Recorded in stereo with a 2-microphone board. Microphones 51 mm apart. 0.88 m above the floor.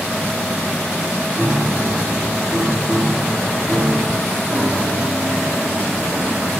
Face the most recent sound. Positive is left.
turn(degrees=40)  # may be behind; listen again after turning